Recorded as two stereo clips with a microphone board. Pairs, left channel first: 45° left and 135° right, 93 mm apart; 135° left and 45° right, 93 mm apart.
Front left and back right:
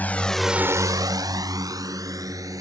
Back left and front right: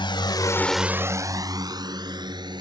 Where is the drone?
115° left; by 2.6 s 85° right.